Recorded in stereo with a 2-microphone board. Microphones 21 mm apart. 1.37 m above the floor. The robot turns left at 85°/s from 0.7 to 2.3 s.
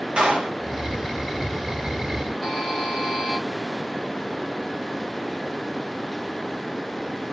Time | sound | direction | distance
0.2 | a clap | 70° right (ahead or behind) | 2 m
2.4 | a buzzer | 10° left (ahead or behind) | 2.5 m